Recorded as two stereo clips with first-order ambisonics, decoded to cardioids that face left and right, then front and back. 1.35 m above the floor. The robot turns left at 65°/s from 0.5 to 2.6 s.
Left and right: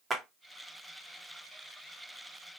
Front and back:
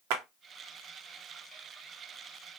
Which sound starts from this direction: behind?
A clap, at 0.1 s.